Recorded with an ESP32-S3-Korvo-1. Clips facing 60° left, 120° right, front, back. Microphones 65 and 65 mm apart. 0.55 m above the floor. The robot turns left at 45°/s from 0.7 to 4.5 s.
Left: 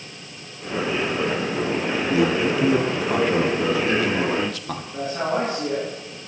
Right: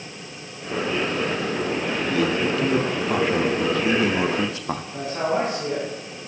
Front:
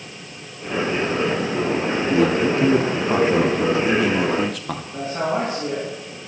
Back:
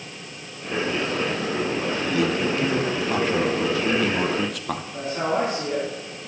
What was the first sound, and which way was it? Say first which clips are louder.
A man speaking: left 2 dB, front 6 dB; 15° left.